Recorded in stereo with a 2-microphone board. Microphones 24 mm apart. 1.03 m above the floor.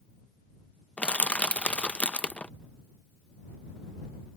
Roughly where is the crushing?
Left.